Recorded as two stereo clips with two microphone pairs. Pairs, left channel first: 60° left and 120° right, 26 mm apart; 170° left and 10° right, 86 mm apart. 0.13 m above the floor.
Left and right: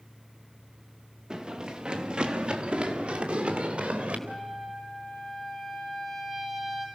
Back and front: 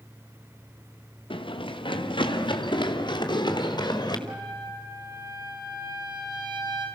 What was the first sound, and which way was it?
Running footsteps, straight behind.